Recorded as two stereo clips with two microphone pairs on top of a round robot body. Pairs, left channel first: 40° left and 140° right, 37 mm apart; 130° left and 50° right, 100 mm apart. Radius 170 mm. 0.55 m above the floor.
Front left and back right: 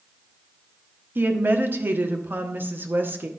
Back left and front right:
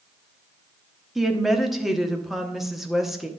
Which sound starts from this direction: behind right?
A woman speaking, at 1.1 s.